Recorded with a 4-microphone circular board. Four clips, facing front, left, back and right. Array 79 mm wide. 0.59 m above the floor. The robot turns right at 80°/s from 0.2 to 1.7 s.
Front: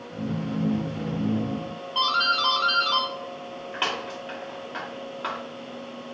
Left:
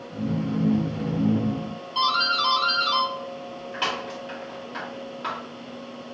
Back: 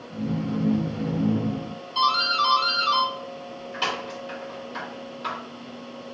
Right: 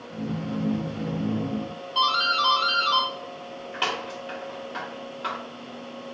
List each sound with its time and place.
1.9 s a doorbell: 10° right, 1.8 m